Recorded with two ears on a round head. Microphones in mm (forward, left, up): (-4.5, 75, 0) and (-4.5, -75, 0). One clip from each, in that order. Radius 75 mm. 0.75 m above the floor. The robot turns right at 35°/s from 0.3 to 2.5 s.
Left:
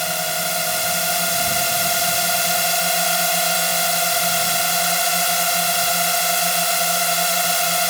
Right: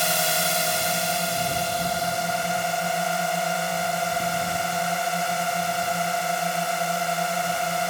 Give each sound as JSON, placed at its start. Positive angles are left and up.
{"t": 0.0, "sound": "a drone", "azimuth_deg": 0}